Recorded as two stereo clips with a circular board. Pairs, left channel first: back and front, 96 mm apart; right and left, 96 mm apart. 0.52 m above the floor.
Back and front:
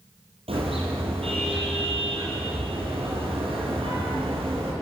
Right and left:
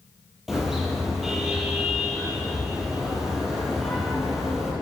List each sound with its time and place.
0.5 s a car horn: 5° left, 7.5 m